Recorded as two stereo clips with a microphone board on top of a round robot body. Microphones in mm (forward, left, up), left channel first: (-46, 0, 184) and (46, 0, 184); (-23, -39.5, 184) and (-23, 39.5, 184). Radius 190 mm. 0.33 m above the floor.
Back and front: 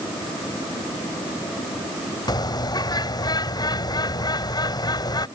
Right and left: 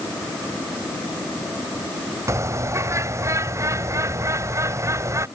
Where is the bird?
140° left.